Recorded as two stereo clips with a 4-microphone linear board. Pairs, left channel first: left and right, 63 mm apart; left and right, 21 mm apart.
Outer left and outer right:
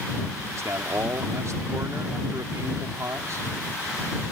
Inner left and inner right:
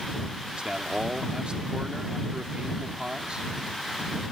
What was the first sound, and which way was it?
A man speaking, 55° right (ahead or behind).